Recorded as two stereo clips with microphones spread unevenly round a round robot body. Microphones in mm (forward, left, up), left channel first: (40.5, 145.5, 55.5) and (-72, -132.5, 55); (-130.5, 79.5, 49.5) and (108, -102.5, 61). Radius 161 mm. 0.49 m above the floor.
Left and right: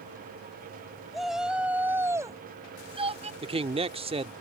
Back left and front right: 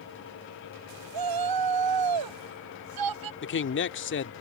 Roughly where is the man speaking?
Behind.